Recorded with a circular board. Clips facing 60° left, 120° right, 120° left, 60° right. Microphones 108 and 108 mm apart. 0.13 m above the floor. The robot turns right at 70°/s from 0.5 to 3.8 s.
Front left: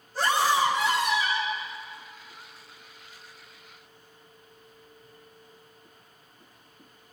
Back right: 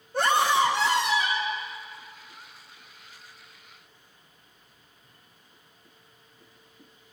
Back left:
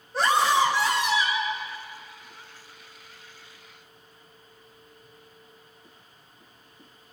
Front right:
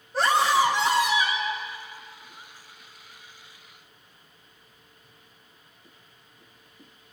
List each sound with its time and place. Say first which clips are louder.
0.1 s a scream: back right 1 dB, even; 150° right, 6 m; by 1.6 s 70° right, 6 m